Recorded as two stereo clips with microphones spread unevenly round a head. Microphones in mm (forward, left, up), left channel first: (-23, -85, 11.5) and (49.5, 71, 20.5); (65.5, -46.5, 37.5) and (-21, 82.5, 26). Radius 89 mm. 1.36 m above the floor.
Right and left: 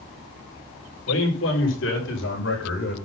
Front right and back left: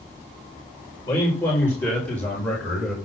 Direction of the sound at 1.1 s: 130° right.